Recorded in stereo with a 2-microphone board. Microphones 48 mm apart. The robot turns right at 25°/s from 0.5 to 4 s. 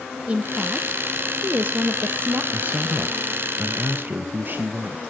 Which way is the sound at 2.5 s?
120° right.